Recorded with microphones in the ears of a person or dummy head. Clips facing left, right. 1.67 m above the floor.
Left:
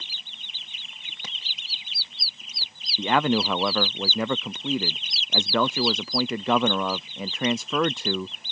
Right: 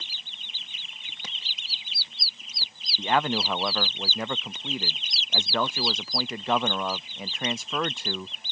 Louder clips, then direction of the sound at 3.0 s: Left 3 dB; 65° left (ahead or behind).